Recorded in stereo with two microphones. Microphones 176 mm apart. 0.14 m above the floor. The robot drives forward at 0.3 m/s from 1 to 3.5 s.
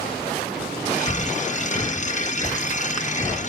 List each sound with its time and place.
1.1 s breathing: 35° left (ahead or behind), 0.6 m; by 3.4 s 15° left (ahead or behind), 1.2 m